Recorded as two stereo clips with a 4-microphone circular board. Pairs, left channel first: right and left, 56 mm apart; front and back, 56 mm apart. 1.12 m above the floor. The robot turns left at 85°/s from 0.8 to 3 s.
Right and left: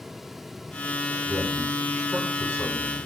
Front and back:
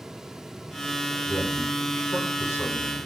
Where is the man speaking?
75° left, 4.5 m; by 3.1 s 70° right, 4.5 m.